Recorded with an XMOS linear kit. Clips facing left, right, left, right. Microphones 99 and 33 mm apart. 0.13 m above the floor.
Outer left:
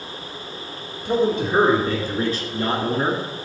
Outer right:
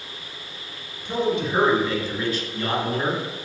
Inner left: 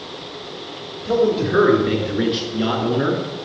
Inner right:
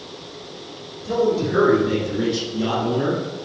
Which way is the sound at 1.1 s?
50° left (ahead or behind).